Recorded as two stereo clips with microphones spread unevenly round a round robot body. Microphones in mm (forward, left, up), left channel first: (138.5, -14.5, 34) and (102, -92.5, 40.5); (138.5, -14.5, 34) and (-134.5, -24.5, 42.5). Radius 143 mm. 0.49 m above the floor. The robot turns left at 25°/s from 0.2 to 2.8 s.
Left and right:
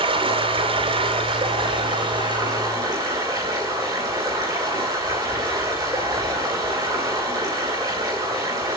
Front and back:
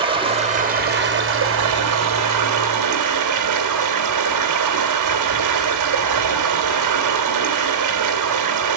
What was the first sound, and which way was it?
Running water, 105° right.